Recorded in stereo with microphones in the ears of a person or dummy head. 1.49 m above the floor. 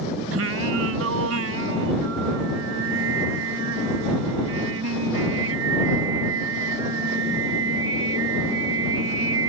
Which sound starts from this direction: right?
Singing, at 0.3 s.